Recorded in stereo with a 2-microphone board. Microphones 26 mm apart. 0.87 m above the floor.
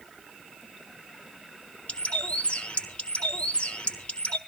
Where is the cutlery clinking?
I don't hear cutlery clinking.